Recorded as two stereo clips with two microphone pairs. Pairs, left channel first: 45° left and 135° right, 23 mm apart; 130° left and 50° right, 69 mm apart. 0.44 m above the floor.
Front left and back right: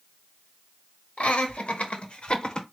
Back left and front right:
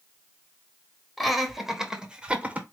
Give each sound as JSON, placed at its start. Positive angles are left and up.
{"t": 1.2, "sound": "laughter", "azimuth_deg": 40, "distance_m": 1.5}